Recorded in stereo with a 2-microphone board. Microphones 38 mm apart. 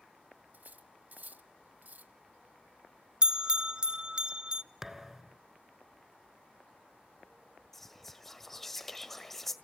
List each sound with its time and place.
0.5 s cutlery clinking: 55° right (ahead or behind), 1.0 m
3.2 s a bell: 25° right (ahead or behind), 0.7 m
4.8 s a thud: 10° right (ahead or behind), 1.0 m
7.7 s whispering: 10° left (ahead or behind), 1.5 m